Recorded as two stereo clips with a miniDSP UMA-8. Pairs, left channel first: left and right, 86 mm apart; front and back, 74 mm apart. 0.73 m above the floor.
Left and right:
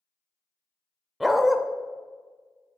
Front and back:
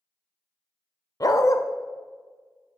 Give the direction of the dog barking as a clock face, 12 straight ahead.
12 o'clock.